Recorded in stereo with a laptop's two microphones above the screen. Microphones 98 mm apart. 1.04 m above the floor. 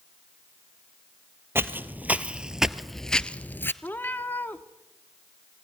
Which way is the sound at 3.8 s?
20° left (ahead or behind).